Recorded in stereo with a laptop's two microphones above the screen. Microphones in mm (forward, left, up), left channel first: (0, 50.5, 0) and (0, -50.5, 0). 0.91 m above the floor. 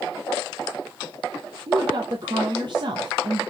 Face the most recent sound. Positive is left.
turn(degrees=-50)  # may be behind; listen again after turning